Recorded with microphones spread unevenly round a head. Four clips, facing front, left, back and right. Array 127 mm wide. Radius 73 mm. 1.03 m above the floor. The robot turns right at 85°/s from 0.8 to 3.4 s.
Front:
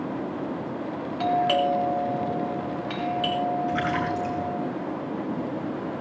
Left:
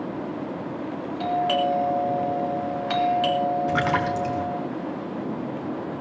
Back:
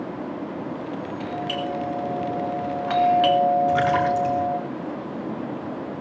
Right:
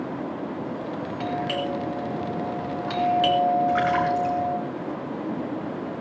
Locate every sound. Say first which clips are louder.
1.2 s a doorbell: left 6 dB, front 9 dB; 10° left, 3 m; by 4.6 s 165° right, 3 m
3.7 s a splash: right 2 dB, back 6 dB; 115° left, 5 m